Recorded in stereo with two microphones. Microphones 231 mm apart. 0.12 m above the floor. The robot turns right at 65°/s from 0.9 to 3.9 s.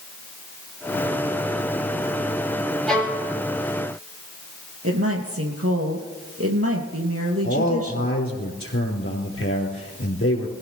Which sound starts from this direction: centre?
A violin, at 2.9 s.